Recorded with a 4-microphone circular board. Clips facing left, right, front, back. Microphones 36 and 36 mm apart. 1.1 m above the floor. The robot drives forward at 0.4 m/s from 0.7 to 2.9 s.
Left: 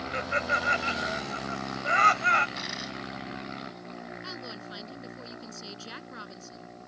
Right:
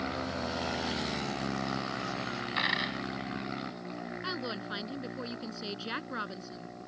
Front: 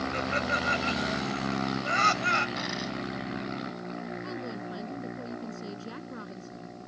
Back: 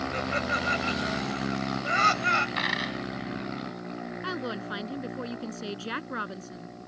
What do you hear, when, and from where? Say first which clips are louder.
0.1 s laughter: left 7 dB, even; 90° left; by 2.5 s 95° left
2.6 s a dropped coin: right 6 dB, back 5 dB; 140° right
4.2 s a woman speaking: right 4 dB, back 4 dB; 155° right